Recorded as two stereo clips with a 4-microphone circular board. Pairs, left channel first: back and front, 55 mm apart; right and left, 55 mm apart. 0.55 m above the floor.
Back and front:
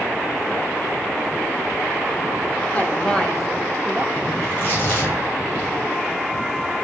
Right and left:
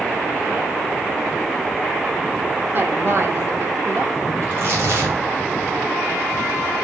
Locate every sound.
2.7 s a woman speaking: 125° left, 1.1 m; by 4.3 s 50° left, 1.2 m
4.4 s tearing paper: 125° left, 3 m